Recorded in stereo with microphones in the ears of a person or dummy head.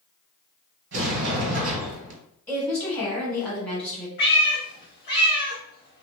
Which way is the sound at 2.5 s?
5° left (ahead or behind).